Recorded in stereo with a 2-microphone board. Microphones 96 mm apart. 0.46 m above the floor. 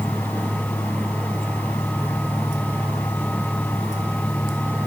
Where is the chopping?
No chopping in this recording.